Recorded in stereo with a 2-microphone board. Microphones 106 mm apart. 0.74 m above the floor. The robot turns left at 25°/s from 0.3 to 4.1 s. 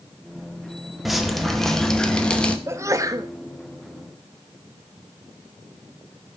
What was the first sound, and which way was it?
Dripping, centre (ahead or behind).